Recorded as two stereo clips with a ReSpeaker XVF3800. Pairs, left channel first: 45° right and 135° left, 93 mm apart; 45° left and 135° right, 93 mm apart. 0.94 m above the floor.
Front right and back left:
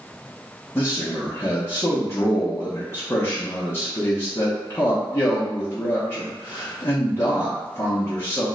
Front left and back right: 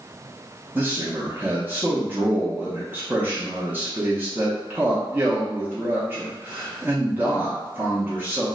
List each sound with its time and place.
0.8 s a man speaking: 80° right, 0.7 m